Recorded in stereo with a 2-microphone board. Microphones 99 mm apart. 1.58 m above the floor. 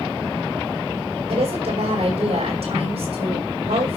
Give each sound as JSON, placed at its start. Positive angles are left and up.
{"t": 1.3, "sound": "a woman speaking", "side_deg": -85, "distance_m": 6.0}